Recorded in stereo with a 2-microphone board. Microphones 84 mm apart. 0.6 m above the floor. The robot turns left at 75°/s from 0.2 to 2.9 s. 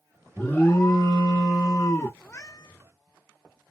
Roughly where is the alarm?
Behind.